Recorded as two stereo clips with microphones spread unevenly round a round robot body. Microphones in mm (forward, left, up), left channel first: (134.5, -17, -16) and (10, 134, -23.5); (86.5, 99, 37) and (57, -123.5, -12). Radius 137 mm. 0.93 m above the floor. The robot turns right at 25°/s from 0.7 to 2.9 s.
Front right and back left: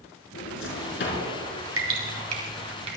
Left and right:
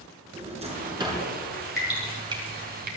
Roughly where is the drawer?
Ahead right.